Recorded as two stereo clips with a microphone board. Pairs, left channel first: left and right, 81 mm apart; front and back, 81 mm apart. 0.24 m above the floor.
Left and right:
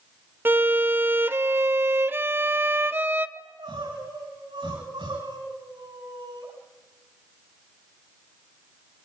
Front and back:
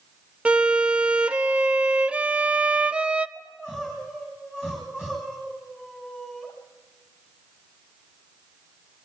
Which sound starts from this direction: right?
Crying, at 3.4 s.